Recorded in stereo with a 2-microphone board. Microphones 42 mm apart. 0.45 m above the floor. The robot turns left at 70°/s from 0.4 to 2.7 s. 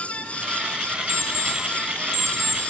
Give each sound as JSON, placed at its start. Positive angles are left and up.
{"t": 1.1, "sound": "an alarm clock", "side_deg": 85, "distance_m": 1.5}